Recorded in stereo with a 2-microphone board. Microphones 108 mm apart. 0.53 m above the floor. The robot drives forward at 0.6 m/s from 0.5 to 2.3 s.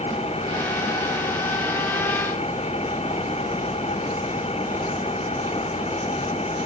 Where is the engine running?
70° left (ahead or behind).